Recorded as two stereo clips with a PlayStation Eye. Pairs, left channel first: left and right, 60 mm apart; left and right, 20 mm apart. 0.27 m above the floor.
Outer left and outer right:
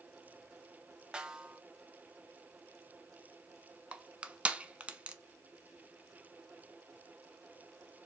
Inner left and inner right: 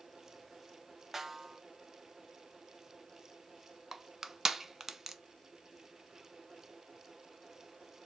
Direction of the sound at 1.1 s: 15° right (ahead or behind).